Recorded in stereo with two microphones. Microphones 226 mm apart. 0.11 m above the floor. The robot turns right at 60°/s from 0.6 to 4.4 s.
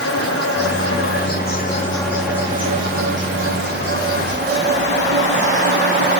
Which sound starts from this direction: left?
An insect, at 0.0 s.